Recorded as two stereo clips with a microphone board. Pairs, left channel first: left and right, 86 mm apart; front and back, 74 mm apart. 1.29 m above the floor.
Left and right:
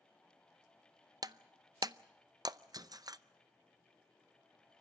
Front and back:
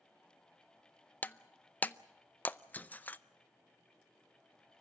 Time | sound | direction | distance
1.2 | breaking glass | 65° right | 0.6 m